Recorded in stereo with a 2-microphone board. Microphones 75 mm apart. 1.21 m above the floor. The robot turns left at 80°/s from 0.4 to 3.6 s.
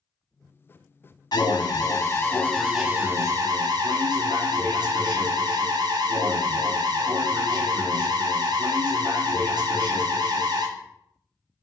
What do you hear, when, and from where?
1.3 s an alarm: 110° left, 0.9 m; by 10.7 s 75° right, 0.9 m